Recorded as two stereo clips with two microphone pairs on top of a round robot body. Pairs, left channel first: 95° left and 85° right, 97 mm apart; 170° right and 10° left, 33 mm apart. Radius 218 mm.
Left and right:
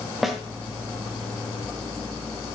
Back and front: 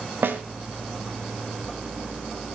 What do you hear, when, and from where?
0.2 s a snare drum: straight ahead, 1.8 m